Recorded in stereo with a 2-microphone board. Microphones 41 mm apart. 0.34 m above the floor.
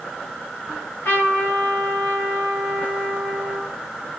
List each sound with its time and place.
0.7 s a trumpet: 65° left (ahead or behind), 3 m